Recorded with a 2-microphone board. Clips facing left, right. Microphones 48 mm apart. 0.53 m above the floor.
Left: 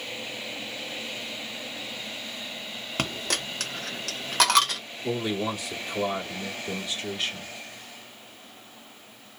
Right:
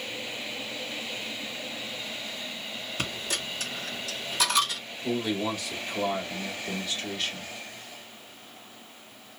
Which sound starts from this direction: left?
A dropped coin, at 3.0 s.